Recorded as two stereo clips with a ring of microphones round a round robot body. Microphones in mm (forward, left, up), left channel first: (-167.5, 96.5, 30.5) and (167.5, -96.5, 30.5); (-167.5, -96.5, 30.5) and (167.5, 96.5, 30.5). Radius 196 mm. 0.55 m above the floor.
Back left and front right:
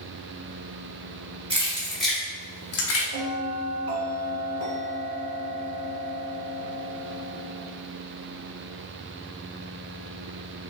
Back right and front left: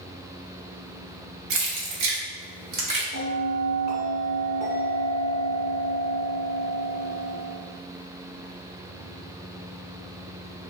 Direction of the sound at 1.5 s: 45° left.